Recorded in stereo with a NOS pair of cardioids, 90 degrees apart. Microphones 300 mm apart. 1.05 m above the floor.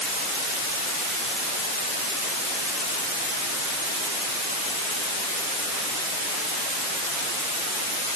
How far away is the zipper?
I don't hear a zipper.